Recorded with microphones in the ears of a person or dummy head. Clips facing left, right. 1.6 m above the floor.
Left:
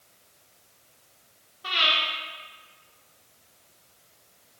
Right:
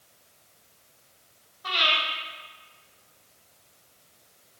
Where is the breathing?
35° left (ahead or behind), 1.7 m.